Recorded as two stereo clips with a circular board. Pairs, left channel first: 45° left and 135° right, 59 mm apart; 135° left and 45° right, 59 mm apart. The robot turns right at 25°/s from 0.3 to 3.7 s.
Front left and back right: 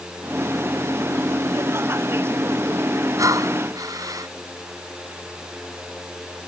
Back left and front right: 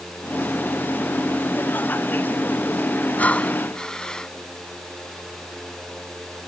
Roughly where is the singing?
No singing in this recording.